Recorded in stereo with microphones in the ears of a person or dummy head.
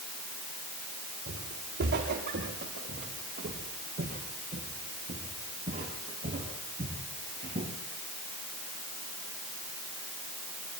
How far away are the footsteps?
About 6.5 m.